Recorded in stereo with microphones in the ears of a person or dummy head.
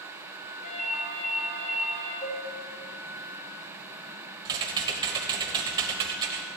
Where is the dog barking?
No dog barking in this recording.